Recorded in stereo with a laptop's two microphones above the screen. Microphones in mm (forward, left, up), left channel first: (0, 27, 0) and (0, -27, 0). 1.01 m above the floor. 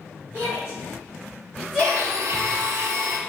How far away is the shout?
About 2 m.